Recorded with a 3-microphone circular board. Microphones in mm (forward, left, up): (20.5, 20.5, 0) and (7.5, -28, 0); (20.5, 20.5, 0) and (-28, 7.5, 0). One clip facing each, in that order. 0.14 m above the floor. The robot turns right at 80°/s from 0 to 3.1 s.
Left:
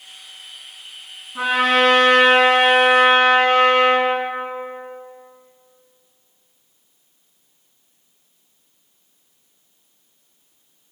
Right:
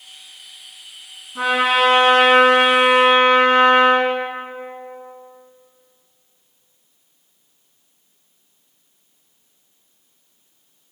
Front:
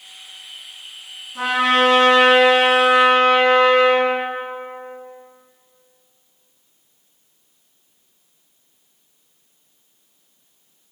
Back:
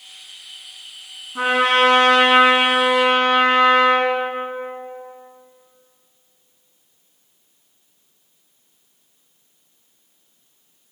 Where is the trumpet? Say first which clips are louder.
Even, back 1 dB; 140° left, 1.9 m; by 4.1 s 80° right, 1.9 m.